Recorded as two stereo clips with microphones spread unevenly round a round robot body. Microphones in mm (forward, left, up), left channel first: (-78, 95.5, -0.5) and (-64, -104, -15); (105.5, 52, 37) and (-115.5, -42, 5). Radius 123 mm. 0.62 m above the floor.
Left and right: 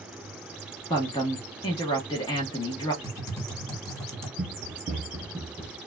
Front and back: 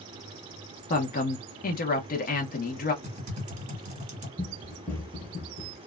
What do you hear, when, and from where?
0.9 s a woman speaking: 40° left, 0.7 m
3.0 s typing on a keyboard: 165° left, 1.4 m
4.4 s running footsteps: 75° right, 0.8 m; by 5.8 s 15° left, 0.8 m